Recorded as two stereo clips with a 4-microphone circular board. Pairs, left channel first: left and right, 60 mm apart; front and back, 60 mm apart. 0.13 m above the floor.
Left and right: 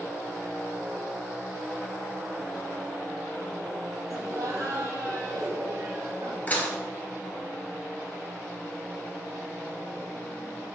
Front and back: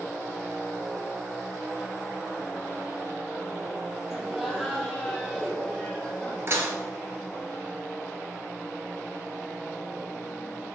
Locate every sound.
4.1 s laughter: 95° right, 3 m; by 6.4 s 80° right, 4 m
6.5 s dishes clattering: 145° left, 1.4 m